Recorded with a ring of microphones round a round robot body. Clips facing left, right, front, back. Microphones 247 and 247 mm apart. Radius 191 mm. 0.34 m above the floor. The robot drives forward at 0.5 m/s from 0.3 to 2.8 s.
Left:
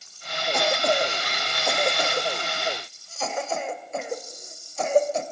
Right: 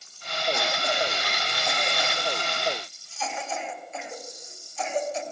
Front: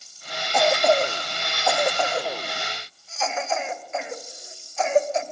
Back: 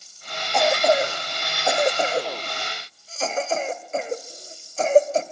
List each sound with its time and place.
0.5 s a cough: 85° left, 1.6 m; by 5.2 s 130° left, 1.9 m